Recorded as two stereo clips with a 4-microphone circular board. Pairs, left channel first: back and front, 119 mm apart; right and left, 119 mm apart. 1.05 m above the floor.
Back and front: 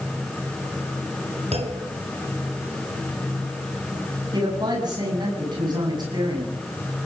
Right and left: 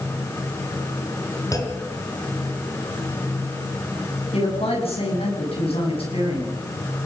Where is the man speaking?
50° right, 8.5 m.